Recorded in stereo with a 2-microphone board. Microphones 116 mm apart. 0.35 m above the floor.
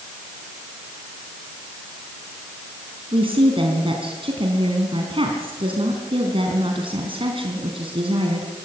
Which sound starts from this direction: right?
A woman speaking, at 3.1 s.